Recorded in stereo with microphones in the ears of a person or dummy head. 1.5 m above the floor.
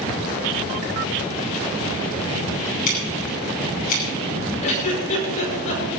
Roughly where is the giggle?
Left.